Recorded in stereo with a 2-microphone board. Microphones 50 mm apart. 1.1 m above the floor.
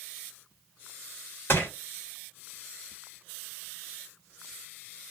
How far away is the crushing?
About 2 m.